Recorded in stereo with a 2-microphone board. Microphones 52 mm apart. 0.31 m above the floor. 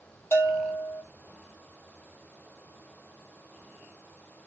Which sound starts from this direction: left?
A bell, at 0.3 s.